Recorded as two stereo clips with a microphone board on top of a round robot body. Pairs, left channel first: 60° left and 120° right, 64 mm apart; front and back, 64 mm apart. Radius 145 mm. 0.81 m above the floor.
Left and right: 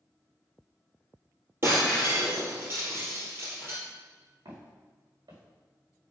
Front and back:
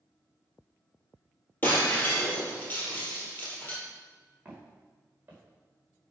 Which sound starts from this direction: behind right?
Footsteps, at 4.5 s.